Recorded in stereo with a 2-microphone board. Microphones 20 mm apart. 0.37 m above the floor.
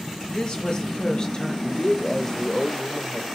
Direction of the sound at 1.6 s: 20° left (ahead or behind).